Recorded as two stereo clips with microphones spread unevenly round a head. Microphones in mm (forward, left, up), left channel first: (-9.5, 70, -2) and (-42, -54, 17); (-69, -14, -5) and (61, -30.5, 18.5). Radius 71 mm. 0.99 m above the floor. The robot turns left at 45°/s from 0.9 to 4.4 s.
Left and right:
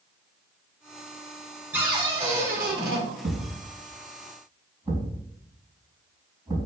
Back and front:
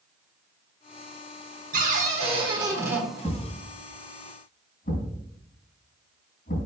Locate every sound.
1.7 s a cupboard door: 30° right, 1.6 m; by 3.0 s 85° right, 1.6 m
3.2 s a thud: 110° right, 2.5 m; by 6.7 s 165° right, 2.5 m